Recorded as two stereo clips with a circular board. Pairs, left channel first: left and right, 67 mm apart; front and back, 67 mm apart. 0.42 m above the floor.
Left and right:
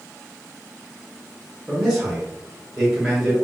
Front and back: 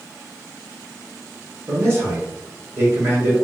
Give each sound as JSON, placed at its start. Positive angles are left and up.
{"t": 1.7, "sound": "a man speaking", "azimuth_deg": -175, "distance_m": 1.0}